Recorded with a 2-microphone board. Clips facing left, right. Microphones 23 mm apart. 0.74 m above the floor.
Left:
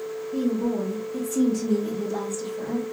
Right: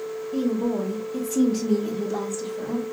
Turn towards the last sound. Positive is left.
turn(degrees=-10)  # may be behind; listen again after turning